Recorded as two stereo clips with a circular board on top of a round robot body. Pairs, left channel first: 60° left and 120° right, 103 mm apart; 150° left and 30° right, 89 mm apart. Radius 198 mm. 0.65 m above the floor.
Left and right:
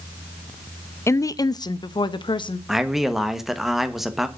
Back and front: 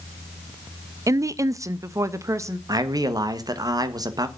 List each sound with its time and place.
1.1 s a woman speaking: 10° left, 0.6 m; by 2.6 s 25° left, 1.2 m
2.7 s a man speaking: 35° right, 1.5 m